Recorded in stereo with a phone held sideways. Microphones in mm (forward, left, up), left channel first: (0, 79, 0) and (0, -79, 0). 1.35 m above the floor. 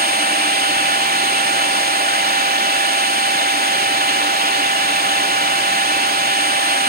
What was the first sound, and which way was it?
A machine running, 75° right (ahead or behind).